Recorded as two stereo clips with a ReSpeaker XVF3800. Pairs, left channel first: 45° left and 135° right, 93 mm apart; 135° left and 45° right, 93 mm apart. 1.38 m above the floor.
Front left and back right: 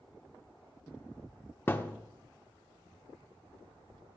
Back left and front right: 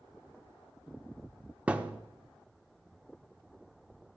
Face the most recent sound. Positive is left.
turn(degrees=15)